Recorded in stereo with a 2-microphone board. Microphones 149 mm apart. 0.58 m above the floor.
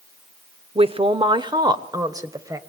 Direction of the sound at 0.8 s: 40° right (ahead or behind).